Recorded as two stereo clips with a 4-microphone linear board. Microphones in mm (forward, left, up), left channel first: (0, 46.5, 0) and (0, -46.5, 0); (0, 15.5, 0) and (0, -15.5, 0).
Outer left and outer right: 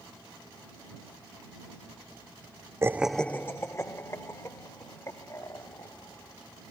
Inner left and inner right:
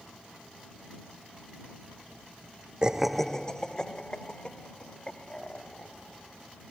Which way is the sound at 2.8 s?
25° right (ahead or behind).